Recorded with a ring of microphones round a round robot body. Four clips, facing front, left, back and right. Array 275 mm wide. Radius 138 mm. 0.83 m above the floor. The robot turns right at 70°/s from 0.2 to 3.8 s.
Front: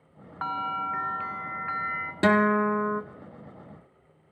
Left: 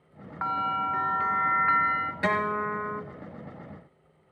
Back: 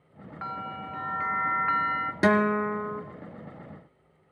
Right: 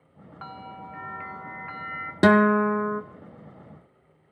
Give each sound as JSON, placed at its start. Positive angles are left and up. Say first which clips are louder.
{"t": 0.4, "sound": "a bell", "louder": "left 12 dB, front 6 dB", "azimuth_deg": 40, "distance_m": 0.8}
{"t": 2.2, "sound": "a guitar", "louder": "right 11 dB, front 2 dB", "azimuth_deg": -95, "distance_m": 1.0}